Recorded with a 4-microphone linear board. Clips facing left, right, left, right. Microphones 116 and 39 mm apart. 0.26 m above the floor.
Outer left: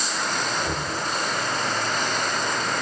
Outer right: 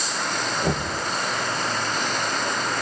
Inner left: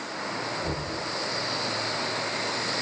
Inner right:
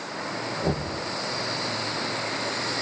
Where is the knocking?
45° right (ahead or behind), 6 m.